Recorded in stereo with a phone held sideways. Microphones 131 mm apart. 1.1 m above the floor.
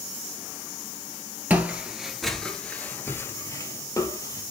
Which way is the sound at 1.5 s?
10° right (ahead or behind).